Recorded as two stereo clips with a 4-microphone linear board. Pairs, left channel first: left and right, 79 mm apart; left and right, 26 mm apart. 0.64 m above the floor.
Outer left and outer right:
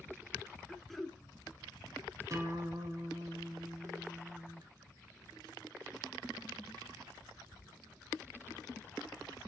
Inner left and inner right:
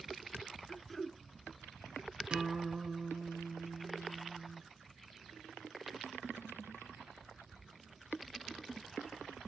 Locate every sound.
0.7 s throat clearing: centre (ahead or behind), 0.7 m
2.3 s a guitar: 45° right (ahead or behind), 1.2 m